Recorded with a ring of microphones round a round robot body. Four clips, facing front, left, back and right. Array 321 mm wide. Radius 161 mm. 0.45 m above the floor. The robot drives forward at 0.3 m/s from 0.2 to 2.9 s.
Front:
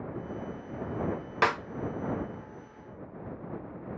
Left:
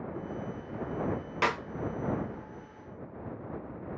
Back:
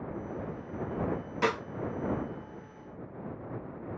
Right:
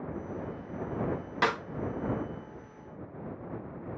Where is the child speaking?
No child speaking in this recording.